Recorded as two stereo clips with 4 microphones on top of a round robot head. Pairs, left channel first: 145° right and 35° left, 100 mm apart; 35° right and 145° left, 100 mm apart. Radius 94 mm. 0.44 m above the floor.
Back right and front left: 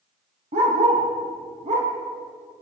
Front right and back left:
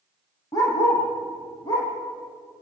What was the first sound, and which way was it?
A dog barking, 20° left.